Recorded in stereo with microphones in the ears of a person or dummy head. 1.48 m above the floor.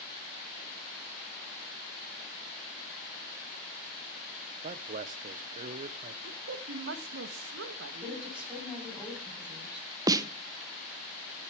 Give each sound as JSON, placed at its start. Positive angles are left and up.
{"t": 4.6, "sound": "a man speaking", "side_deg": -40, "distance_m": 0.6}
{"t": 6.2, "sound": "a woman speaking", "side_deg": -70, "distance_m": 1.3}
{"t": 8.0, "sound": "a woman speaking", "side_deg": -5, "distance_m": 6.0}
{"t": 10.1, "sound": "a snare drum", "side_deg": -20, "distance_m": 0.8}